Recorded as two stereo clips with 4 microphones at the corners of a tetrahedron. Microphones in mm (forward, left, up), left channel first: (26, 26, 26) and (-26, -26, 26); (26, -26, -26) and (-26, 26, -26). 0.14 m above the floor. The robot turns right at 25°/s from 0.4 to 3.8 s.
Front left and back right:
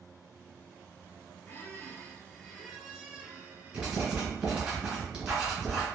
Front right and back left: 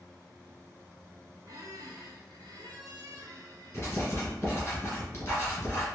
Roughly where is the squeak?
Left.